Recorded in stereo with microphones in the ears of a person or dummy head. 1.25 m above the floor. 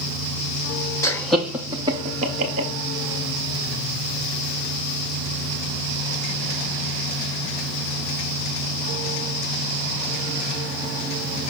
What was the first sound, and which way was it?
Laughter, 15° left (ahead or behind).